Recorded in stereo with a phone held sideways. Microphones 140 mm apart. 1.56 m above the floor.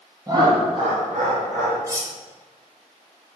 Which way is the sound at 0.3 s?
25° right (ahead or behind).